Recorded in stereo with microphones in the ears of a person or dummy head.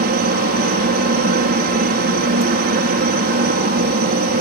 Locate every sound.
0.0 s a helicopter: 45° right (ahead or behind)